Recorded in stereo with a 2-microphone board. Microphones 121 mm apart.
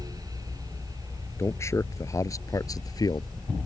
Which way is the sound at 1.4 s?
25° left (ahead or behind).